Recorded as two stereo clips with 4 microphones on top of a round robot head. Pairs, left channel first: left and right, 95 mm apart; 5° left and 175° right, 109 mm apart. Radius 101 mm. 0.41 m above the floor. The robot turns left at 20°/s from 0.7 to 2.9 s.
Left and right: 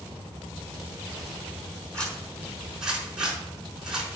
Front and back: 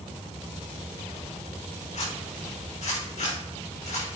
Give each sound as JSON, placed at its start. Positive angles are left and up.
{"t": 1.9, "sound": "a zipper", "azimuth_deg": 15, "distance_m": 5.0}